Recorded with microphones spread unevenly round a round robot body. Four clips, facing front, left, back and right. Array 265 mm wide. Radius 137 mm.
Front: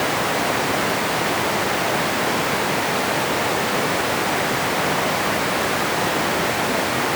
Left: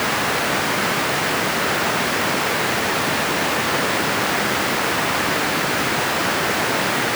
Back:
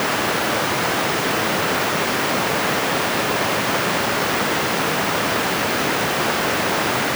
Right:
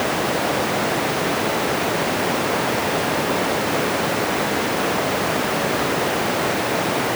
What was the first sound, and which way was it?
Only background noise.